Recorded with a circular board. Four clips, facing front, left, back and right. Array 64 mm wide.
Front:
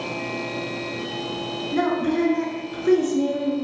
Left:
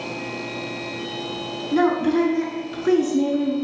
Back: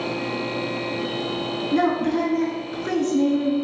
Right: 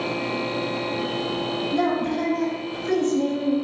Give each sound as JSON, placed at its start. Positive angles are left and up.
{"t": 1.7, "sound": "a woman speaking", "azimuth_deg": 110, "distance_m": 2.5}